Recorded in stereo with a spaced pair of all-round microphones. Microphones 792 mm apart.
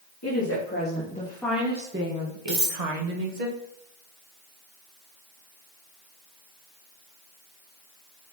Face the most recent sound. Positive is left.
turn(degrees=-70)  # may be behind; listen again after turning